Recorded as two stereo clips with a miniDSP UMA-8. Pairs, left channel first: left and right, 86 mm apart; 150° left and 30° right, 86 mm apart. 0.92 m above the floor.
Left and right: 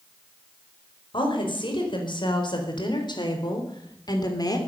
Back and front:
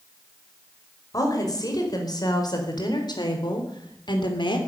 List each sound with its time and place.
1.1 s a woman speaking: 105° left, 4.5 m; by 4.6 s 130° left, 3 m